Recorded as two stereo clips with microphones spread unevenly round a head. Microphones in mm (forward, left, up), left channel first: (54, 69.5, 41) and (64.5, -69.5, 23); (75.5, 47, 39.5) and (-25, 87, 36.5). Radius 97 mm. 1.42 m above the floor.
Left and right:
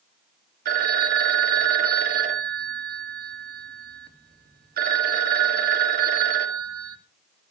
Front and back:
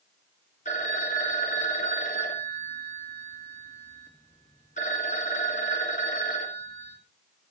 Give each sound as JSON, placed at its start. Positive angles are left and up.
{"t": 0.7, "sound": "a phone ringing", "azimuth_deg": -75, "distance_m": 1.6}